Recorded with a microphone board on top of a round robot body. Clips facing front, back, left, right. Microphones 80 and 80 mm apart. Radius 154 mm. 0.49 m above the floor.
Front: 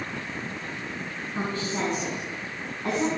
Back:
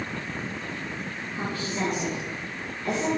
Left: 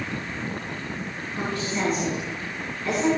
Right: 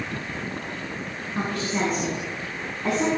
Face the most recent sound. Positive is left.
turn(degrees=-55)